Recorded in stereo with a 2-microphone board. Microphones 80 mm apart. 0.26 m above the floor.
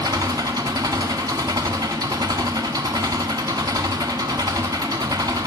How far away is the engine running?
About 0.9 m.